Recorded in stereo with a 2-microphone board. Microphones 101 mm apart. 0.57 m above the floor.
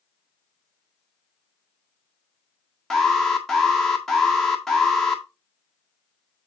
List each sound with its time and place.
2.9 s an alarm: centre (ahead or behind), 1.7 m